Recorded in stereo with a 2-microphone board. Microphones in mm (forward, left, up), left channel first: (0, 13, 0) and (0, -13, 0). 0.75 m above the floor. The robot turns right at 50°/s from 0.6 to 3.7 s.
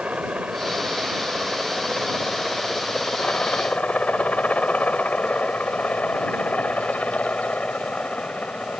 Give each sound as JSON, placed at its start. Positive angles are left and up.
{"t": 0.0, "sound": "a helicopter", "side_deg": -60}